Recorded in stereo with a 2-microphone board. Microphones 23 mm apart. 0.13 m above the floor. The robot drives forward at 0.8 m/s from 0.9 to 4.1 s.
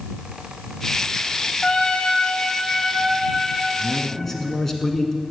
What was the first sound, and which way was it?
A trumpet, 60° left (ahead or behind).